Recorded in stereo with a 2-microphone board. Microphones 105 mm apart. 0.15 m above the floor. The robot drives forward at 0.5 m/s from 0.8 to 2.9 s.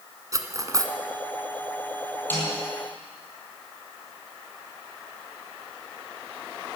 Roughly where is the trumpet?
No trumpet in this recording.